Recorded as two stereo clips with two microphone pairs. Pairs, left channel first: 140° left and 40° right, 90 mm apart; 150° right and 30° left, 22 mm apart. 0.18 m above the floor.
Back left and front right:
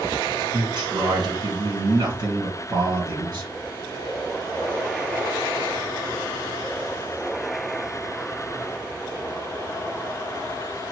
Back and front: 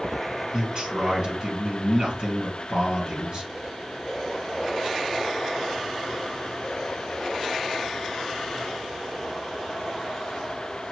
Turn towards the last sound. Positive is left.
turn(degrees=-10)